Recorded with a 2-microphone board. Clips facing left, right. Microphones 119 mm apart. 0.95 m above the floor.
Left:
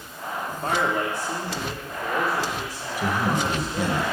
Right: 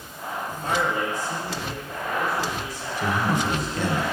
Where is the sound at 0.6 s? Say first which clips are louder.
Left 1 dB; 50° left (ahead or behind), 1.4 m; by 4.0 s 85° left, 3.5 m.